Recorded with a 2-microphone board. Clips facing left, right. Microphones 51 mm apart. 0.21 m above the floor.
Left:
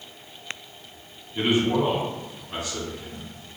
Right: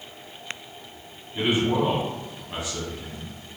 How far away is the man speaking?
About 1.8 m.